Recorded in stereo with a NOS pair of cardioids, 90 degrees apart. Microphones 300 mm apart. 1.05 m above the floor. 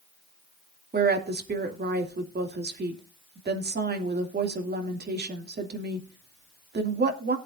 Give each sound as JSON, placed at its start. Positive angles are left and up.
{"t": 0.9, "sound": "a woman speaking", "azimuth_deg": -35, "distance_m": 2.5}